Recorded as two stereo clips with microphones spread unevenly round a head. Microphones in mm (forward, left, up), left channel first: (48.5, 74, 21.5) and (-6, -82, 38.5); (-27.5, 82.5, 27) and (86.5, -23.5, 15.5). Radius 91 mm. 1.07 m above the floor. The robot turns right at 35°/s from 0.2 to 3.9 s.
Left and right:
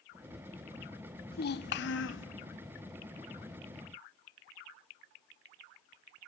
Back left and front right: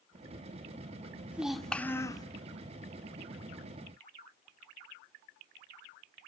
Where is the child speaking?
40° left, 1.3 m; by 2.3 s 70° left, 1.3 m.